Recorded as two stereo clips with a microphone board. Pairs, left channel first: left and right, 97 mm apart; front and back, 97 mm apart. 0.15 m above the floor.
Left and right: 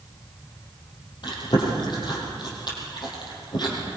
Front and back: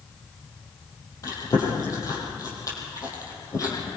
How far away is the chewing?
About 5.5 m.